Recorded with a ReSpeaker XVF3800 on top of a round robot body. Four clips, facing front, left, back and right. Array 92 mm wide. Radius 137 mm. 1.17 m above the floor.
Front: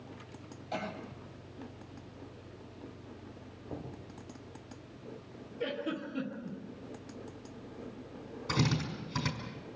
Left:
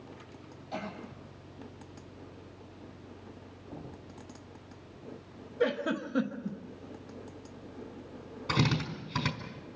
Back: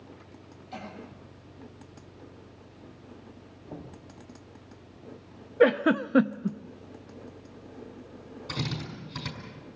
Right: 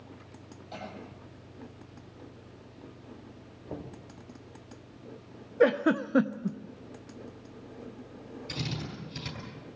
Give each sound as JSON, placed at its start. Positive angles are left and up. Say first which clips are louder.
{"t": 0.7, "sound": "a cough", "louder": "left 3 dB, front 3 dB", "azimuth_deg": 5, "distance_m": 9.0}
{"t": 3.7, "sound": "knocking", "louder": "right 5 dB, even", "azimuth_deg": -80, "distance_m": 5.0}
{"t": 5.6, "sound": "a giggle", "louder": "right 6 dB, back 15 dB", "azimuth_deg": -150, "distance_m": 0.7}
{"t": 8.5, "sound": "a drill", "louder": "left 8 dB, front 3 dB", "azimuth_deg": 65, "distance_m": 5.0}